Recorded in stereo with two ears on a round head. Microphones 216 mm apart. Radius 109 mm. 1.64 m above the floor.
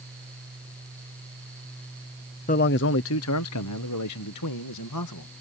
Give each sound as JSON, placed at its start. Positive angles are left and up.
{"t": 2.5, "sound": "a man speaking", "side_deg": 30}